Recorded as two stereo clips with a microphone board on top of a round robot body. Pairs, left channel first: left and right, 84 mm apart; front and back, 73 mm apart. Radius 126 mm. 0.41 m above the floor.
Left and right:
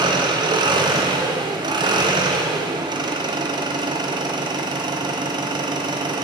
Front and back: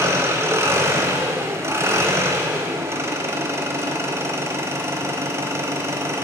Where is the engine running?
125° right, 0.8 m.